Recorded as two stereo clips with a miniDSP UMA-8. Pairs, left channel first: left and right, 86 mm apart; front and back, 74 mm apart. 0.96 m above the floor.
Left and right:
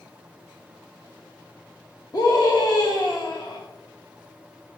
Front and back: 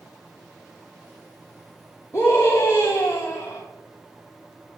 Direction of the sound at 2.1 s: 50° left.